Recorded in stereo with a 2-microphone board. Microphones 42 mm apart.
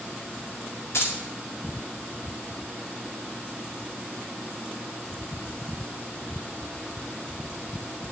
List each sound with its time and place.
0.9 s keys jangling: 80° left, 2 m